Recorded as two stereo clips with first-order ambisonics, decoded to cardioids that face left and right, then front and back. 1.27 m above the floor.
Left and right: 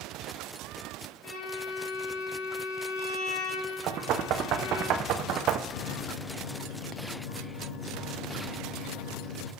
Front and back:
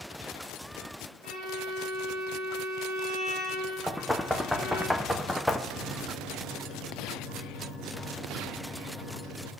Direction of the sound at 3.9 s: 85° right.